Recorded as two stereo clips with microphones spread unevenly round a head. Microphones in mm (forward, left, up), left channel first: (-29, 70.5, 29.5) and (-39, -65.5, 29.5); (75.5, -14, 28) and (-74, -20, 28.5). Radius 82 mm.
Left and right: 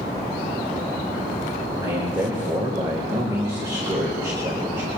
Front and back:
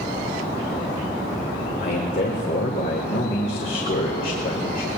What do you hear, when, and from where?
1.8 s a man speaking: 25° right, 1.9 m